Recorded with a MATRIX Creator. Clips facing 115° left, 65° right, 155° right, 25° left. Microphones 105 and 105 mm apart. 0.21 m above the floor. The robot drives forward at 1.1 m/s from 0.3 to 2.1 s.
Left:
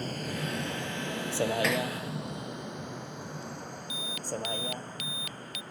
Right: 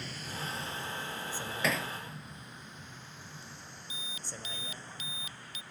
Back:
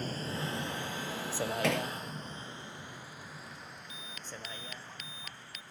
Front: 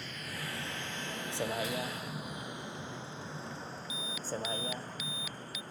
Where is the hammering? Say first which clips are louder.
Left 4 dB, back 5 dB; 155° right; by 1.9 s 160° right.